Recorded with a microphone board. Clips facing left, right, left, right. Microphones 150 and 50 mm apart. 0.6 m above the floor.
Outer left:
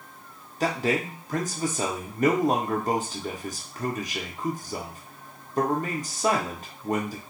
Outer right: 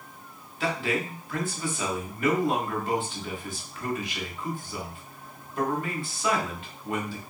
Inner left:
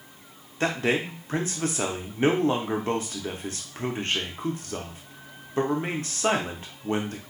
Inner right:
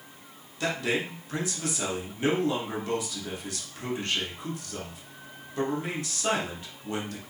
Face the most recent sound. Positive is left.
turn(degrees=40)  # may be behind; listen again after turning